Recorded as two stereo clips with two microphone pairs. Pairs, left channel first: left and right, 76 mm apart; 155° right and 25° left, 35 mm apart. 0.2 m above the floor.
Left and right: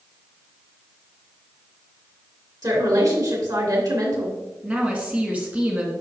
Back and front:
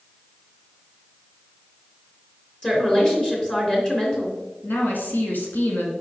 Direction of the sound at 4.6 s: 155° right.